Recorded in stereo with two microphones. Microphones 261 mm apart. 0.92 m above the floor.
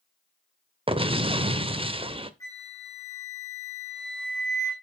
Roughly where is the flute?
Centre.